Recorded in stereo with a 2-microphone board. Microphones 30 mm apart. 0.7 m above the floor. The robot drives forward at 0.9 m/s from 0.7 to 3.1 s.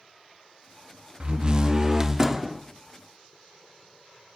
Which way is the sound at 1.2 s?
35° right (ahead or behind).